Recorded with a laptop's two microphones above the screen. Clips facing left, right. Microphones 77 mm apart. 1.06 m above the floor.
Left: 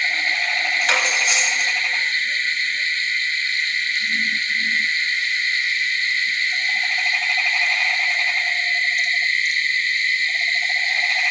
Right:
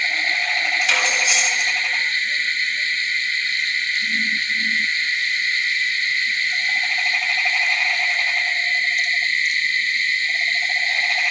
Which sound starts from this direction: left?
Cutlery clinking, at 0.8 s.